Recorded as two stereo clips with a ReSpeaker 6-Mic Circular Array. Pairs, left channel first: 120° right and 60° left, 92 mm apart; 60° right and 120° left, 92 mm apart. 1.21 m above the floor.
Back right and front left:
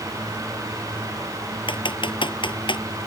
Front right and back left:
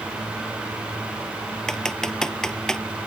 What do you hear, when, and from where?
1.7 s typing on a keyboard: 145° right